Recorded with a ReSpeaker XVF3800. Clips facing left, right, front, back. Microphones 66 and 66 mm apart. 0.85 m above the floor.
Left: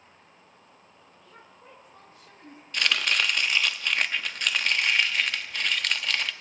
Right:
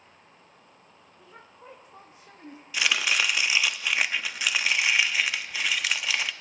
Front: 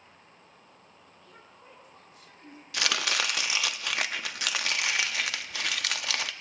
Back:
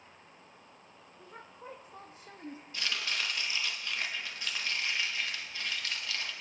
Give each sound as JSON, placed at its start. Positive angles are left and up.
{"t": 1.2, "sound": "a woman speaking", "azimuth_deg": -150, "distance_m": 1.1}
{"t": 2.7, "sound": "chopping", "azimuth_deg": -5, "distance_m": 0.6}